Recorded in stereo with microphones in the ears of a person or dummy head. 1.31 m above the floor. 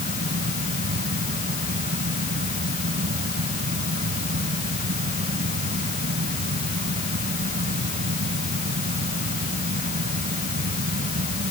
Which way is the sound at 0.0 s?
45° right (ahead or behind).